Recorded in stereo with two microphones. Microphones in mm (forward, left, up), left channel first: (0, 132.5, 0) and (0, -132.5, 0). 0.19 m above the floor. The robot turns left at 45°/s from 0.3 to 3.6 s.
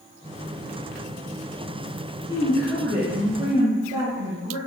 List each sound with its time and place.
2.3 s a woman speaking: 20° left, 3.5 m; by 4.6 s 40° right, 3.5 m